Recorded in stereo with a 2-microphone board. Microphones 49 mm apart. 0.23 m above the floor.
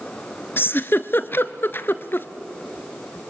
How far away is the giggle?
About 0.8 m.